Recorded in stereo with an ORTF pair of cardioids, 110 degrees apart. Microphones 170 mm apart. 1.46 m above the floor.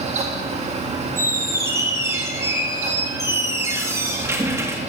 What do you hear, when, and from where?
0.0 s a fan: 40° right, 1.9 m
1.2 s a squeak: 15° right, 1.8 m